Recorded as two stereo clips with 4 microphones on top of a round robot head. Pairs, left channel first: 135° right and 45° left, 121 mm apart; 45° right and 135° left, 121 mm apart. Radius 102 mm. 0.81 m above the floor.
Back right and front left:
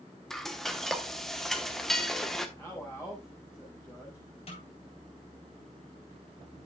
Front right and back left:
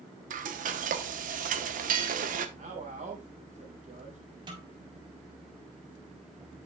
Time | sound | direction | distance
0.3 | frying | 135° left | 1.1 m
2.6 | a man speaking | 150° left | 4 m
4.5 | a snare drum | 170° right | 4 m